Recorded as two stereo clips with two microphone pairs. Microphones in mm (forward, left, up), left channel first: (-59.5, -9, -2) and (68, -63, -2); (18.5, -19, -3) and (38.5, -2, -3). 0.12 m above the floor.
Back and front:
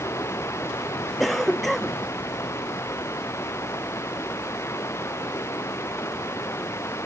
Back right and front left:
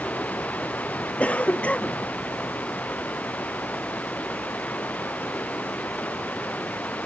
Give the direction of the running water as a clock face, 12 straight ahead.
4 o'clock.